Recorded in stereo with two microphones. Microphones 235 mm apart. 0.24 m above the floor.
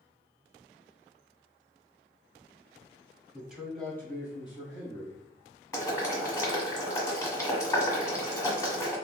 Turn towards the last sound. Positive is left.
turn(degrees=15)  # may be behind; listen again after turning